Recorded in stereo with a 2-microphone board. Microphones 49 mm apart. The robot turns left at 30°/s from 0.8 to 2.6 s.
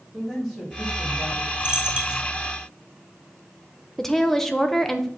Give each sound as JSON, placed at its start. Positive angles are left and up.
{"t": 0.1, "sound": "a man speaking", "side_deg": 5, "distance_m": 3.0}
{"t": 1.6, "sound": "a dropped coin", "side_deg": -20, "distance_m": 1.1}
{"t": 4.0, "sound": "a woman speaking", "side_deg": 10, "distance_m": 0.9}